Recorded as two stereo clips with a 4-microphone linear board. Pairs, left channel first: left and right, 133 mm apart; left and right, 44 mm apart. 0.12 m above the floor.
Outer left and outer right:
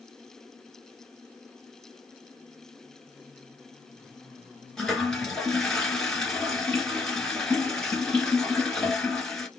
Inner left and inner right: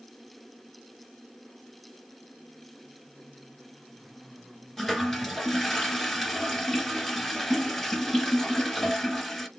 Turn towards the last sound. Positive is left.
turn(degrees=5)  # may be behind; listen again after turning